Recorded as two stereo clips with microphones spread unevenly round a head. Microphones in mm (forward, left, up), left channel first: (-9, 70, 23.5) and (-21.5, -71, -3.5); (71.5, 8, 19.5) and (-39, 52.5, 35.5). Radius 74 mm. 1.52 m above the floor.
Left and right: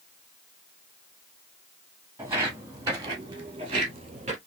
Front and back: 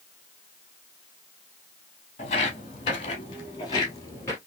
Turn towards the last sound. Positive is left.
turn(degrees=-95)